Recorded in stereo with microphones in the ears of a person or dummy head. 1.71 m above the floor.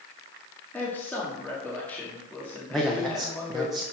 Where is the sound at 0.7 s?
20° left (ahead or behind), 1.5 m.